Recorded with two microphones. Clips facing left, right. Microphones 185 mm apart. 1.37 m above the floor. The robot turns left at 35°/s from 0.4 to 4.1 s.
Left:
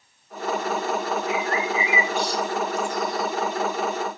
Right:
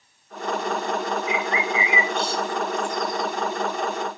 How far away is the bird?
About 1.6 m.